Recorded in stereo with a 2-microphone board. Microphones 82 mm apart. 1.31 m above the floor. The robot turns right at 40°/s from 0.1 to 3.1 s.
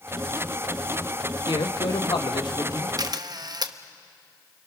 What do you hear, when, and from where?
1.5 s a man speaking: 80° left, 1.5 m; by 2.9 s 135° left, 1.5 m
3.0 s a camera shutter: 50° right (ahead or behind), 0.8 m; by 3.7 s 55° right (ahead or behind), 0.8 m